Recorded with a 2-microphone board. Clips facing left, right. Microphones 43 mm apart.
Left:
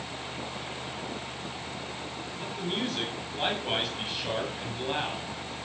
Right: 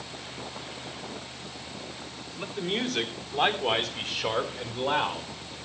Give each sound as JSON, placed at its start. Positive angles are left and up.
{"t": 2.4, "sound": "a man speaking", "side_deg": -60, "distance_m": 2.5}